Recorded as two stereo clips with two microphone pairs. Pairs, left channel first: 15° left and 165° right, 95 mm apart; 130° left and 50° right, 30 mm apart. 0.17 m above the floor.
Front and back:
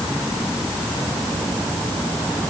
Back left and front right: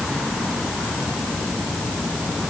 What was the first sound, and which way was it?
Only background noise.